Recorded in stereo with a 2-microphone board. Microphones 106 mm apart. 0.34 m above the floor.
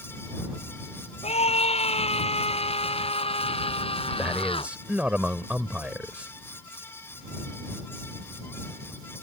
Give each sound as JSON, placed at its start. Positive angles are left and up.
{"t": 1.2, "sound": "a scream", "side_deg": 80}
{"t": 4.2, "sound": "a man speaking", "side_deg": -15}